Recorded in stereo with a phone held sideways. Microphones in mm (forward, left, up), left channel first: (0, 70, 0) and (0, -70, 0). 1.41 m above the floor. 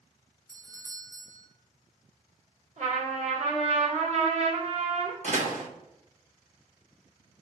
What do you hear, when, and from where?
0.5 s a doorbell: 25° right (ahead or behind), 0.7 m
2.8 s a trumpet: 60° right (ahead or behind), 1.7 m
5.2 s a door slam: 60° right (ahead or behind), 1.0 m